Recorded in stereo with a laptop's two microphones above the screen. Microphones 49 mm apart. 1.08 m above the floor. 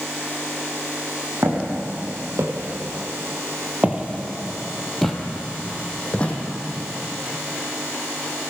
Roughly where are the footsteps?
Right.